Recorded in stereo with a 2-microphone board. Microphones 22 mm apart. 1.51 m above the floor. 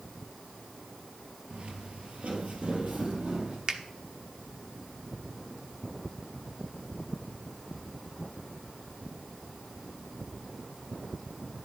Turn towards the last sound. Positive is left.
turn(degrees=-40)  # may be behind; listen again after turning